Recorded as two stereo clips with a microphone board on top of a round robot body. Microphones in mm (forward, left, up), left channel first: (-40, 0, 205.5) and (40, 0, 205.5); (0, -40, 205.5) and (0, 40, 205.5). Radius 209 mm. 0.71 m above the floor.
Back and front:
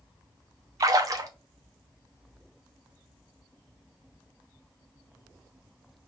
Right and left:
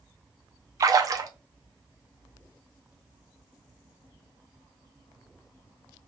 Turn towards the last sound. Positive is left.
turn(degrees=45)